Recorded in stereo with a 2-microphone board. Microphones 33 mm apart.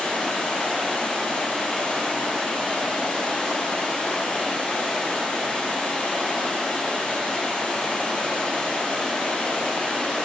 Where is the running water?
35° left (ahead or behind), 1.6 m.